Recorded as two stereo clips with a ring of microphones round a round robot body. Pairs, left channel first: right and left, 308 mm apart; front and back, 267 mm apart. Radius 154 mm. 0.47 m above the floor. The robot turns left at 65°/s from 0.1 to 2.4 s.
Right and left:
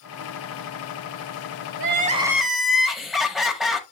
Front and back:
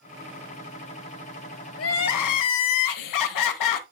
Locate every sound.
1.8 s crying: 40° left, 0.9 m; by 3.8 s straight ahead, 0.9 m